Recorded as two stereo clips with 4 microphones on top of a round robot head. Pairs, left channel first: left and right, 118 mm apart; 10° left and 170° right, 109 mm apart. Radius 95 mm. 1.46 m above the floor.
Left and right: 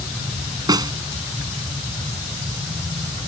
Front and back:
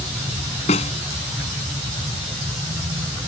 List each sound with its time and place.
0.7 s a snare drum: 35° right